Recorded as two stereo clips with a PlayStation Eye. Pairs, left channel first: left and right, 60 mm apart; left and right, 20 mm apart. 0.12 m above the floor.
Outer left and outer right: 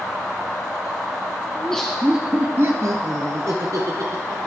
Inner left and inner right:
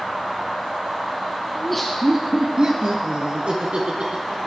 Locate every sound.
1.6 s laughter: 20° left (ahead or behind), 1.2 m; by 4.5 s 70° right (ahead or behind), 3.5 m